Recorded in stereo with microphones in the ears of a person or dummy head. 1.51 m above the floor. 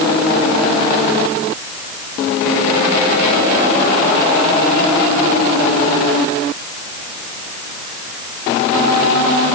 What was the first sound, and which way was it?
Only background noise.